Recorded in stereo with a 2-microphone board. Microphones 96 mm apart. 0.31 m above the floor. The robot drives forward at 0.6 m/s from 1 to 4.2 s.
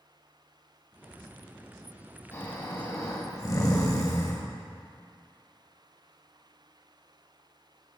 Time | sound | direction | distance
2.3 | snoring | 30° left (ahead or behind) | 1.5 m